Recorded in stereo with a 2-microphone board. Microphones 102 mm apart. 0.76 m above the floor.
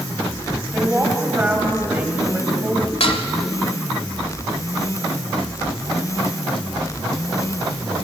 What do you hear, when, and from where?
0.7 s a woman speaking: 15° right (ahead or behind), 5 m
3.0 s dishes clattering: 70° left (ahead or behind), 2.5 m